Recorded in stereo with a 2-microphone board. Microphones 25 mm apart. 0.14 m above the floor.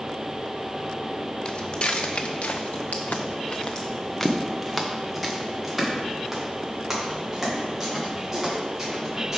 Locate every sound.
1.4 s footsteps: 45° left (ahead or behind), 1.3 m; by 9.4 s 15° right (ahead or behind), 4.5 m